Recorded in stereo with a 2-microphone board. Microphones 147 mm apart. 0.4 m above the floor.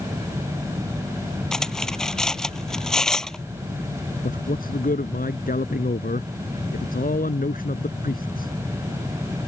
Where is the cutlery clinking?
5° left (ahead or behind).